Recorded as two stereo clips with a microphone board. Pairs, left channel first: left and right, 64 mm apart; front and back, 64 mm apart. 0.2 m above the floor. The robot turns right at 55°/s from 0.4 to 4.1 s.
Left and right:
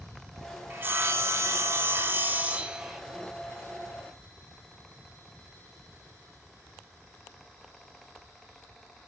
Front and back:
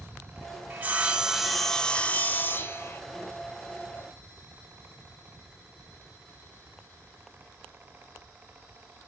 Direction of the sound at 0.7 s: 130° right.